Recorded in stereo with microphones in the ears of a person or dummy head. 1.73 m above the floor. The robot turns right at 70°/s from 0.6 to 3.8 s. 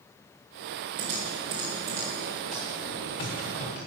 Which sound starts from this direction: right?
Typing on a keyboard, at 1.0 s.